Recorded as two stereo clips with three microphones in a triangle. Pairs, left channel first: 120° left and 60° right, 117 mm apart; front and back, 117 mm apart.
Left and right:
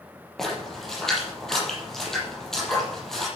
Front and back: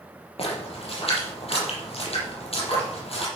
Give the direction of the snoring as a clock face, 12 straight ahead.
No snoring in this recording.